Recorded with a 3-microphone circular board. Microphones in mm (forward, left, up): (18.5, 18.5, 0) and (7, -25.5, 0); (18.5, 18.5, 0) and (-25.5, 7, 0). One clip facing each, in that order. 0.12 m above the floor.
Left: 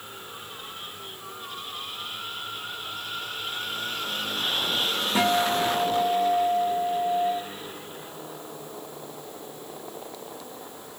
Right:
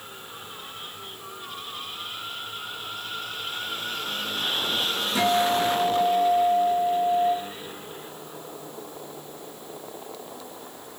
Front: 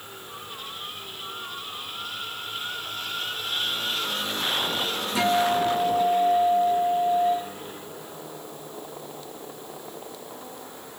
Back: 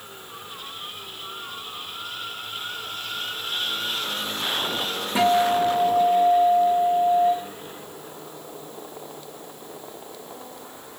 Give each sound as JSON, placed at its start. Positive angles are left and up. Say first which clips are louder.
{"t": 5.2, "sound": "a guitar", "louder": "right 1 dB, back 3 dB", "azimuth_deg": 135, "distance_m": 2.5}